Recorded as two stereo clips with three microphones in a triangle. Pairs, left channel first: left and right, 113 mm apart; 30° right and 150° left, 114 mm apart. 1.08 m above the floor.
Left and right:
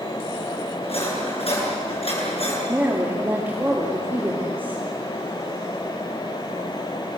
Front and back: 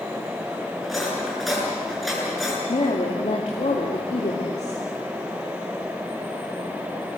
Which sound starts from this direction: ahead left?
Cutlery clinking, at 0.8 s.